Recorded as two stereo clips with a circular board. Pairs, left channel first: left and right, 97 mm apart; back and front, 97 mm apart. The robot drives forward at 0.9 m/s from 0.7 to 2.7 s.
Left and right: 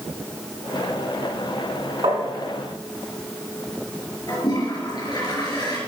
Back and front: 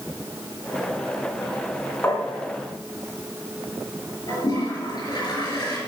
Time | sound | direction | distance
2.0 | tapping | 115° right | 3.5 m
4.3 | a toilet flushing | 135° left | 5 m